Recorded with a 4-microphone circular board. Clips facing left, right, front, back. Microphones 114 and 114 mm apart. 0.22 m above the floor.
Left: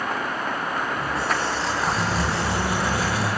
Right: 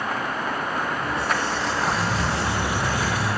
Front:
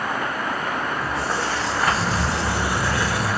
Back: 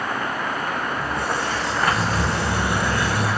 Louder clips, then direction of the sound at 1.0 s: Even, even; 150° left.